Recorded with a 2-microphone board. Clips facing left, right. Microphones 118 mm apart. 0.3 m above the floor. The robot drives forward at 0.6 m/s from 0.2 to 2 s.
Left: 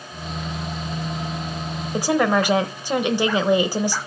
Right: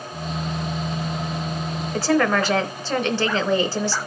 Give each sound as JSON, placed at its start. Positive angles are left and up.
{"t": 1.9, "sound": "a woman speaking", "side_deg": 15, "distance_m": 0.9}